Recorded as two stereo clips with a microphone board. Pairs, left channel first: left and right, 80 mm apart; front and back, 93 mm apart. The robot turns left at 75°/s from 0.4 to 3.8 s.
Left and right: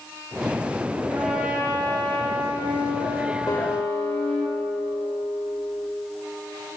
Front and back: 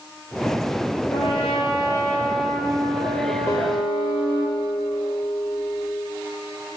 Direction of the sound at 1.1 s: 5° left.